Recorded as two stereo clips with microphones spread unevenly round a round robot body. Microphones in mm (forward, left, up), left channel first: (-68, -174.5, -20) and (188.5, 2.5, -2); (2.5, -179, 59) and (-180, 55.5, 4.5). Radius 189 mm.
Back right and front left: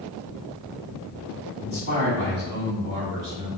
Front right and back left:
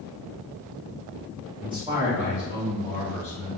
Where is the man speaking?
105° left, 0.8 m; by 3.5 s 30° left, 1.4 m.